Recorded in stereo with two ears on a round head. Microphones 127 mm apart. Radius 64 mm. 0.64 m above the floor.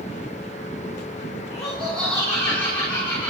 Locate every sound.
1.5 s laughter: 5° left (ahead or behind), 6.5 m; by 3.3 s 10° left (ahead or behind), 8.5 m